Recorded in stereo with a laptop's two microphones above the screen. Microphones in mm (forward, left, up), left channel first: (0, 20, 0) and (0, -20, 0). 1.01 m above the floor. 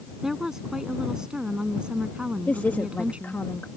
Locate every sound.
0.2 s a woman speaking: 10° right (ahead or behind); by 3.4 s 35° right (ahead or behind)
2.5 s a woman speaking: 50° left (ahead or behind)